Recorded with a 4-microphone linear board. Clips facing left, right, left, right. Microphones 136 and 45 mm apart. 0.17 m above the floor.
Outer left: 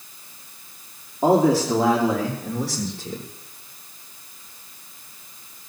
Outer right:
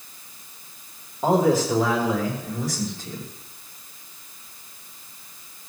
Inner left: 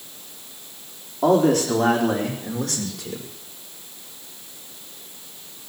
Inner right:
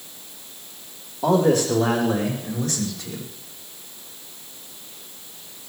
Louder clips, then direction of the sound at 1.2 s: Outer left 2 dB, inner left 1 dB; 80° left.